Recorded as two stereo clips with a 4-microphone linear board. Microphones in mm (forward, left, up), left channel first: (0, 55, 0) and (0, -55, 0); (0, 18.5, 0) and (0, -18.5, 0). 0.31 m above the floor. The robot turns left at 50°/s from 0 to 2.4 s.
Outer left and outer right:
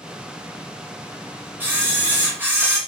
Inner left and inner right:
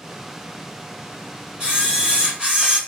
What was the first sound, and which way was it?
A camera shutter, 20° right (ahead or behind).